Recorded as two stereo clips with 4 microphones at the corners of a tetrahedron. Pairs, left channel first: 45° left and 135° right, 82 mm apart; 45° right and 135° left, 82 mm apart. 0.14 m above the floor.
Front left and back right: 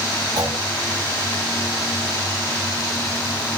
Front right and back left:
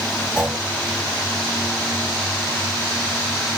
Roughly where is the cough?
I don't hear a cough.